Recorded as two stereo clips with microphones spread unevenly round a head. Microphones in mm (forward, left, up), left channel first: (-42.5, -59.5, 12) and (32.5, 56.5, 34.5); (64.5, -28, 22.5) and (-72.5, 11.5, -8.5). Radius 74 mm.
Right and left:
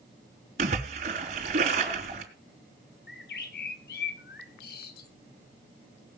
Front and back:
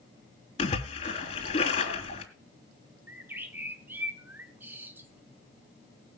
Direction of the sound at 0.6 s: 25° left.